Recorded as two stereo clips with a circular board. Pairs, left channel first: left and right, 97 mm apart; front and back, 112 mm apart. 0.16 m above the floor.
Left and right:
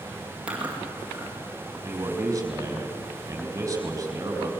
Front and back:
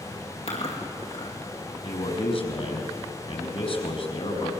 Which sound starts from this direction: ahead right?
A man speaking, at 1.8 s.